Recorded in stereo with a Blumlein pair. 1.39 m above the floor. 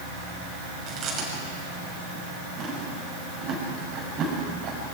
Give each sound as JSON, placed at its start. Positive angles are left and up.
{"t": 0.9, "sound": "chewing", "azimuth_deg": -30, "distance_m": 7.5}